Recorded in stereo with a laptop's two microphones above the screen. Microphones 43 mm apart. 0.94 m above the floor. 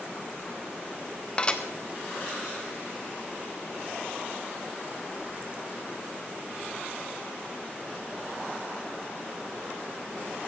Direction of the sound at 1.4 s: 20° left (ahead or behind).